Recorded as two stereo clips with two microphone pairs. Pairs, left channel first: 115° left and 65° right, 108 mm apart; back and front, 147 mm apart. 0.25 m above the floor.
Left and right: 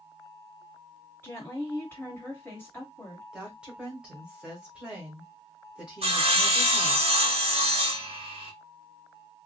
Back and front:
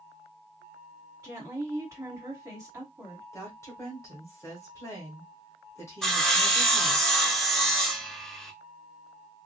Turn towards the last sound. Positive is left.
turn(degrees=-95)